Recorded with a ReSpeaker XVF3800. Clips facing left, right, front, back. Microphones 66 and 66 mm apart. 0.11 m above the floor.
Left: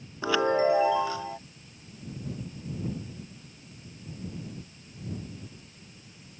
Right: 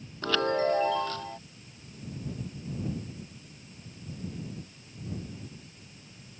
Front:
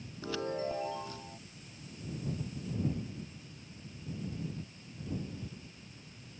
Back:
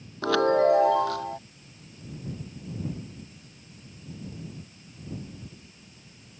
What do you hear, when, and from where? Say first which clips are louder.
0.2 s a chime: left 3 dB, back 15 dB; 170° left